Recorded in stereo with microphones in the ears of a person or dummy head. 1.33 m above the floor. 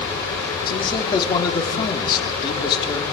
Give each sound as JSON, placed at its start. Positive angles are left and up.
{"t": 0.7, "sound": "a man speaking", "side_deg": 25, "distance_m": 3.0}